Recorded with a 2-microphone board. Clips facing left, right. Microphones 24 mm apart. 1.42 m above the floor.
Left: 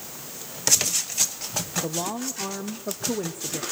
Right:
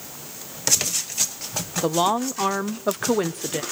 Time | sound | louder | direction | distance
1.8 | a woman speaking | right 8 dB | 65° right (ahead or behind) | 0.8 m